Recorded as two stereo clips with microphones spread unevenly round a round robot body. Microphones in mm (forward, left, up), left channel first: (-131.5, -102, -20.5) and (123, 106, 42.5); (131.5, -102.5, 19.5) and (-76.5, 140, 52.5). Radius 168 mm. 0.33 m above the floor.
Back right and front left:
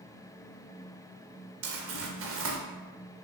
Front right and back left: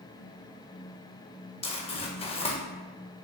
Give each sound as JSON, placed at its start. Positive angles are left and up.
{"t": 1.6, "sound": "crumpling", "azimuth_deg": 0, "distance_m": 0.8}